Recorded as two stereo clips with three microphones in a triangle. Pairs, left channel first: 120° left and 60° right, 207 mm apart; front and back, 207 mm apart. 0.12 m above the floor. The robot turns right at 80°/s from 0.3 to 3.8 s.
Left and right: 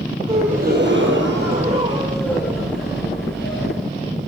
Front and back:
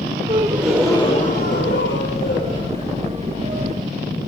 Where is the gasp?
120° right, 4 m; by 3.7 s 155° left, 4 m.